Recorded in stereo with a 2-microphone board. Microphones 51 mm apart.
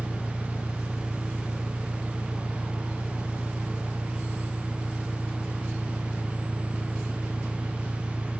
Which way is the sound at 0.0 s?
15° right (ahead or behind).